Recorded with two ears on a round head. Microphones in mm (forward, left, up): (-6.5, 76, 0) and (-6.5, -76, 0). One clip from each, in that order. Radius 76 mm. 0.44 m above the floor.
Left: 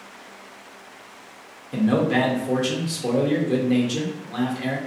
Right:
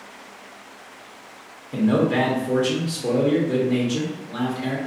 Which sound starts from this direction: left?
A man speaking, at 1.7 s.